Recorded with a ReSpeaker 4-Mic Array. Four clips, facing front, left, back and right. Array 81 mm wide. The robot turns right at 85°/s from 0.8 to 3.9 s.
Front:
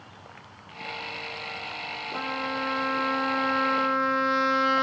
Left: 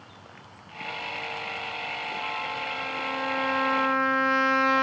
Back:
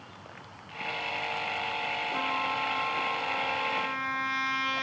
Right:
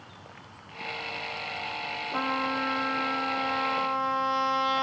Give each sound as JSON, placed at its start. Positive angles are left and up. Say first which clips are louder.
{"t": 2.1, "sound": "a trumpet", "louder": "right 7 dB, front 2 dB", "azimuth_deg": -85, "distance_m": 2.5}